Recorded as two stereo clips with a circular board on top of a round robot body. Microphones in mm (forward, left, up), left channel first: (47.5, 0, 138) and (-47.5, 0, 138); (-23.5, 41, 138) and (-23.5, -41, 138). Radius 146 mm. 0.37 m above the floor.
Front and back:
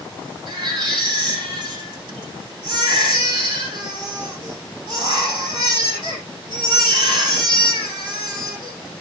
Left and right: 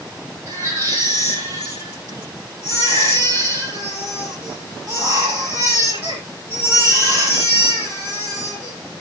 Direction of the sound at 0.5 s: 145° right.